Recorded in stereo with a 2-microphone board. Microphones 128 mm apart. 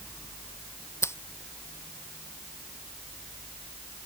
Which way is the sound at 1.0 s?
20° left (ahead or behind).